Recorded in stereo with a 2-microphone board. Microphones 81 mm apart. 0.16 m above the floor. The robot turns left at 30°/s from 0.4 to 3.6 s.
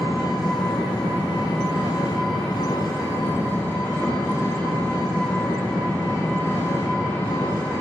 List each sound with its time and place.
0.0 s an engine running: 120° left, 3.5 m; by 7.8 s 25° left, 3.5 m